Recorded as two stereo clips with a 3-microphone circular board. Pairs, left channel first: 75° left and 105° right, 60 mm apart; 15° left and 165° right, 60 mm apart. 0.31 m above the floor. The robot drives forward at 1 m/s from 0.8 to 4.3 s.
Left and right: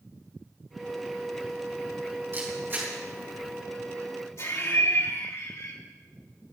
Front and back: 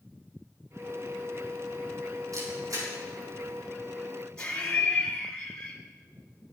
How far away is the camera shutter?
About 5 m.